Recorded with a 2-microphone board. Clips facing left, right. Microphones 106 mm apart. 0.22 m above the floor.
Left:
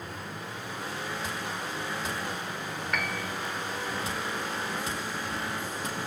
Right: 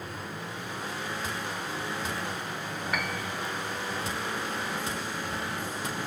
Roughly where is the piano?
Centre.